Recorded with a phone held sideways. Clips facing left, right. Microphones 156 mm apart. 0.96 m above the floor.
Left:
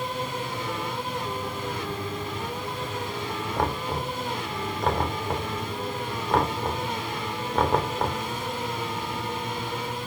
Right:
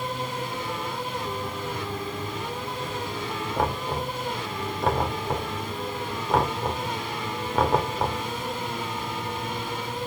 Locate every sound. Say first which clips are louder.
3.6 s knocking: right 1 dB; 5° right (ahead or behind), 3 m